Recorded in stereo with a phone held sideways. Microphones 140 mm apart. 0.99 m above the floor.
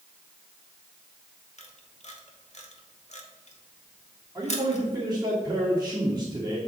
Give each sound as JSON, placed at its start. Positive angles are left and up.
{"t": 1.6, "sound": "a camera shutter", "side_deg": 50, "distance_m": 1.0}
{"t": 4.3, "sound": "a man speaking", "side_deg": -20, "distance_m": 1.9}